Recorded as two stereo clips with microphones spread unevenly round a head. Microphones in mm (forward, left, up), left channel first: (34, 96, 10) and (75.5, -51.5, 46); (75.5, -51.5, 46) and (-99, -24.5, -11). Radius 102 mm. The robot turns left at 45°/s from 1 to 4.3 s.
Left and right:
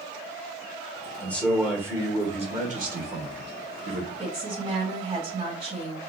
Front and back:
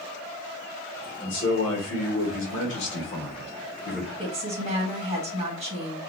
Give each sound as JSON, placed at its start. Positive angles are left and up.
{"t": 1.2, "sound": "a man speaking", "azimuth_deg": 35, "distance_m": 1.2}
{"t": 4.2, "sound": "a woman speaking", "azimuth_deg": -135, "distance_m": 1.6}